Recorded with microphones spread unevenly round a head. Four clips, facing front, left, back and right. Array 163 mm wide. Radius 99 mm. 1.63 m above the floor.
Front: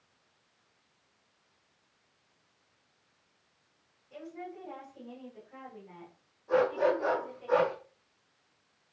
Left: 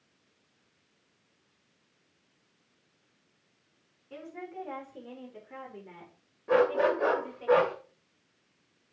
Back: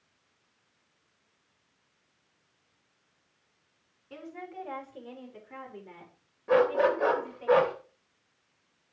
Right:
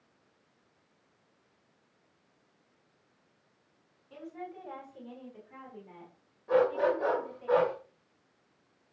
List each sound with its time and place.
4.1 s a woman speaking: 150° left, 5 m; by 7.5 s 115° left, 5.5 m
6.5 s a dog barking: 140° left, 3 m